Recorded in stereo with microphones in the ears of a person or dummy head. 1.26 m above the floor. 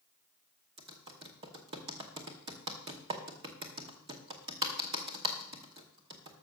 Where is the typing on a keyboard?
30° right (ahead or behind), 1.0 m.